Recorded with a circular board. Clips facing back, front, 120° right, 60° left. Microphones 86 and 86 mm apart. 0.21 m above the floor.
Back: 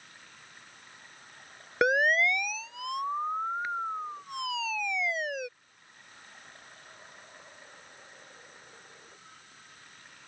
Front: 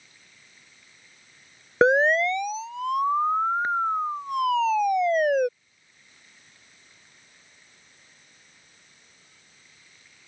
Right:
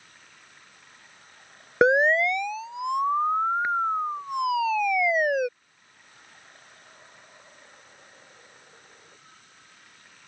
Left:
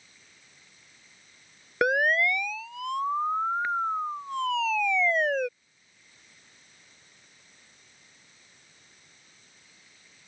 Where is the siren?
60° right; by 5.5 s 40° right.